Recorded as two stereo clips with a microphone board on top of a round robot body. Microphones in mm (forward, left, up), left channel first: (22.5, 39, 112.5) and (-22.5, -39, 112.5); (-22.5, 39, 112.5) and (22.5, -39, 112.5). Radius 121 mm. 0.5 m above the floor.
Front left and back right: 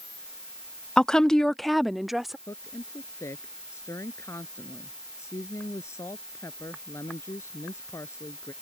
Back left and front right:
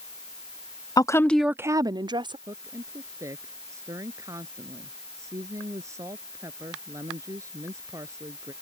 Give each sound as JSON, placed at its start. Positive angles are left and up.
{"t": 1.0, "sound": "a woman speaking", "azimuth_deg": 140}
{"t": 2.5, "sound": "a woman speaking", "azimuth_deg": 0}